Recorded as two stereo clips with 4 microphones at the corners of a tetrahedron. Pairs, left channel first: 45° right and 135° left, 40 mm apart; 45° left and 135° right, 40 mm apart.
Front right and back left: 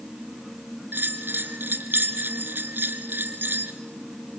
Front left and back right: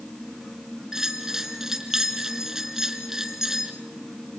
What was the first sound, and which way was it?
A bell, 150° left.